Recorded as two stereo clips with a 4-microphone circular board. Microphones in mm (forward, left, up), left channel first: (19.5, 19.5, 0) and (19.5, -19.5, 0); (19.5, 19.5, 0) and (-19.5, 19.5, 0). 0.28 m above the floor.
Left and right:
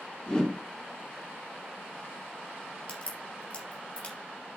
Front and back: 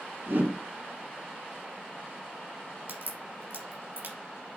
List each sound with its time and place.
0.3 s a whoosh: 160° left, 3.5 m
2.9 s a crack: 155° left, 3.5 m